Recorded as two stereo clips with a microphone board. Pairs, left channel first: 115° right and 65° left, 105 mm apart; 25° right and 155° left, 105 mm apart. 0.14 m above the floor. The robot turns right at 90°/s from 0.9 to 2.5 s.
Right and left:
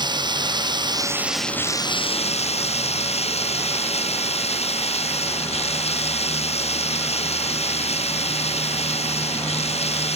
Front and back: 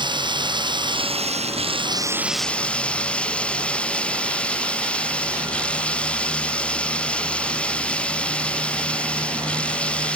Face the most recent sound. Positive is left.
turn(degrees=-100)